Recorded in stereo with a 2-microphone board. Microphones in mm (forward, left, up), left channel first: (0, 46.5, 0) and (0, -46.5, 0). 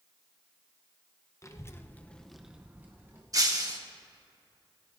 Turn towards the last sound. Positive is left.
turn(degrees=-40)  # may be behind; listen again after turning